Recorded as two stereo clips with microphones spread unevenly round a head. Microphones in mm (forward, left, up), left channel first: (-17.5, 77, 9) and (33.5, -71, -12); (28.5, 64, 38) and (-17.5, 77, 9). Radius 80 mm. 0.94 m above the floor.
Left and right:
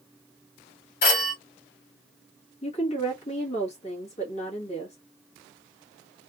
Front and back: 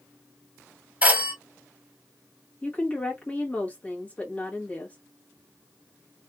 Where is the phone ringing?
90° left, 1.5 m.